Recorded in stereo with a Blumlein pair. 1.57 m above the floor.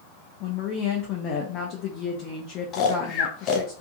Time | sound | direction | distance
0.4 | a woman speaking | 35° left | 0.6 m
2.7 | snoring | 30° left | 0.6 m